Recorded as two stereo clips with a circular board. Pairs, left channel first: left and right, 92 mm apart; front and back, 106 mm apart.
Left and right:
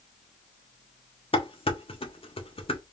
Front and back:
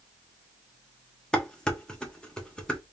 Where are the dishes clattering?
80° left, 1.1 m.